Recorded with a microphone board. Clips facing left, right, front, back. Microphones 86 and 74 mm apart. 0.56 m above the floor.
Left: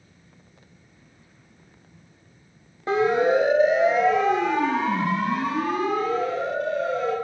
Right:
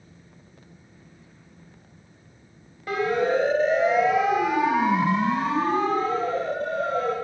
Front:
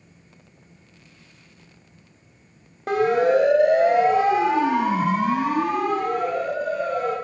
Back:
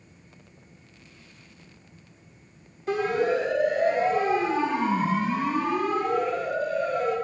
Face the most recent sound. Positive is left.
turn(degrees=-40)